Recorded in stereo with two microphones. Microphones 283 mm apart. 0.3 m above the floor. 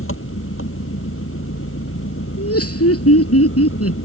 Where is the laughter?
55° left (ahead or behind).